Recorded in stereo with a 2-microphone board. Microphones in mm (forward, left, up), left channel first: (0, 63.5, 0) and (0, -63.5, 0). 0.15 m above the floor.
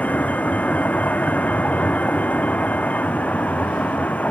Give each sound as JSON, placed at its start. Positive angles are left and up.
{"t": 0.0, "sound": "a vehicle", "side_deg": 10}